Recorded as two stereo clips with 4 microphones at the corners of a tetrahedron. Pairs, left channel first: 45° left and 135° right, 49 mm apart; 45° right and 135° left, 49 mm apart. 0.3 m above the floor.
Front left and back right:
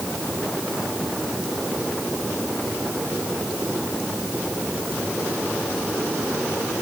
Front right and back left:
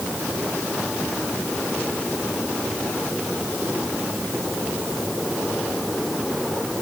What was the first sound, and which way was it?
Only background noise.